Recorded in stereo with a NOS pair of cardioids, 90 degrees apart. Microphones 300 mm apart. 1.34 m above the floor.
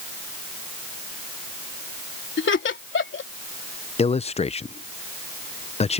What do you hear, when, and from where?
2.4 s laughter: 40° left
4.0 s a man speaking: 20° left